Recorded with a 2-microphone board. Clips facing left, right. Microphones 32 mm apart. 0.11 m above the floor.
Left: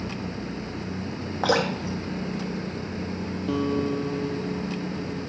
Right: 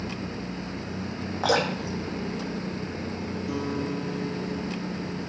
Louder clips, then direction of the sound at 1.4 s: Left 1 dB; 10° left (ahead or behind).